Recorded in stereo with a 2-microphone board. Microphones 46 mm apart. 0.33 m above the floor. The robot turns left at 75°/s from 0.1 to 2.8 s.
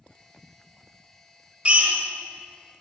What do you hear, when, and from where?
1.6 s a drill: 35° right (ahead or behind), 0.6 m; by 1.9 s 45° right (ahead or behind), 0.6 m